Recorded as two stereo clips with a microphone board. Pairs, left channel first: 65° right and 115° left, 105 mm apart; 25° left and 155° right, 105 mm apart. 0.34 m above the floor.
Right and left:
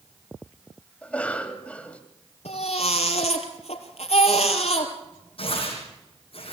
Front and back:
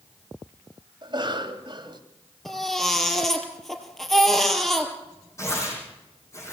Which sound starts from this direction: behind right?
A cough, at 1.0 s.